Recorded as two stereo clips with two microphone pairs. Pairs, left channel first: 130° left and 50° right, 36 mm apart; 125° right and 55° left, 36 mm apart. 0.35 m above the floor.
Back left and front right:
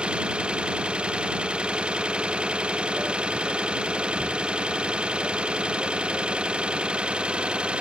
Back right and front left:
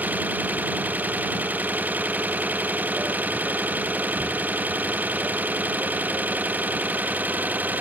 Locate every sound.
0.0 s an engine running: 10° left